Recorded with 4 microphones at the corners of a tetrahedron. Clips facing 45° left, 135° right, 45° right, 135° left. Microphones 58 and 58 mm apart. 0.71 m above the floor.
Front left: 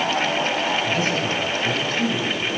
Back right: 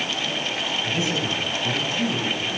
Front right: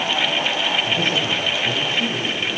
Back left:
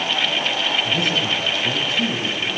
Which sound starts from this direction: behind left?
A man speaking, at 0.8 s.